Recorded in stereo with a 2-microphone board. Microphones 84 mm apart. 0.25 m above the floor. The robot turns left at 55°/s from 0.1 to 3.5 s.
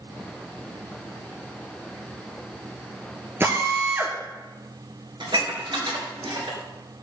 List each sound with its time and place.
3.4 s a drill: 30° right (ahead or behind), 1.8 m; by 4.2 s 35° right (ahead or behind), 1.8 m
5.2 s dishes clattering: 70° right (ahead or behind), 3 m